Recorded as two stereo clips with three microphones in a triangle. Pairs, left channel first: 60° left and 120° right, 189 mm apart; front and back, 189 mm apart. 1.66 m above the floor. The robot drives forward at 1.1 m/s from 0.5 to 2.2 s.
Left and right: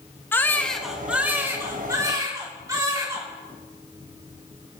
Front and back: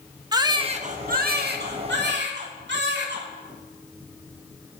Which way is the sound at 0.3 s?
130° left.